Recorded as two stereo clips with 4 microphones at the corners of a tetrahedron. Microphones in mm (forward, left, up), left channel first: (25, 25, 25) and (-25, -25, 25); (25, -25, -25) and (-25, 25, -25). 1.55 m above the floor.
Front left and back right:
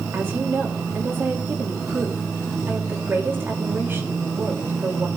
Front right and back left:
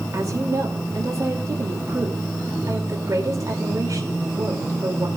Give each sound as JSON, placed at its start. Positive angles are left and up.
{"t": 0.1, "sound": "a woman speaking", "azimuth_deg": 170, "distance_m": 2.5}